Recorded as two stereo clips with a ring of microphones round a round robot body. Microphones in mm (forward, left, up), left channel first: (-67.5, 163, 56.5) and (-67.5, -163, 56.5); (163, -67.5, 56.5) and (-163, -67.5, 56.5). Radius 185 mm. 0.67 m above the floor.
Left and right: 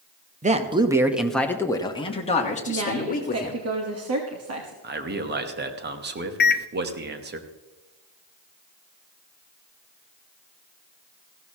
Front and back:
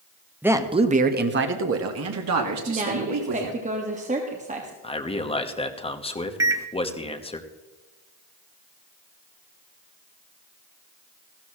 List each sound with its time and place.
0.4 s a man speaking: 105° right, 1.0 m; by 3.6 s 150° left, 2 m
2.7 s a woman speaking: 115° right, 1.5 m
4.8 s a man speaking: 60° right, 1.2 m
6.4 s a microwave: 110° left, 0.6 m